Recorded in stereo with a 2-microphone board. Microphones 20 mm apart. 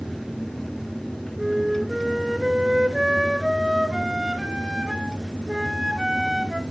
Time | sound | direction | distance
1.4 | a flute | 20° right (ahead or behind) | 1.5 m